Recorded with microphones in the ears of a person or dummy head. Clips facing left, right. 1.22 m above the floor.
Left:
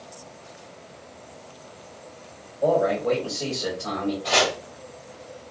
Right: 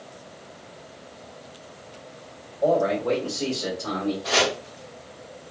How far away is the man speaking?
About 2.5 m.